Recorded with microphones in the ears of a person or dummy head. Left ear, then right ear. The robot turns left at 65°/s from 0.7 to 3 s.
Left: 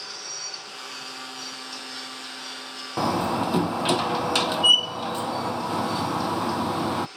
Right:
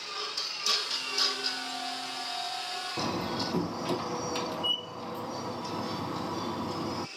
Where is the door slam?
40° left (ahead or behind).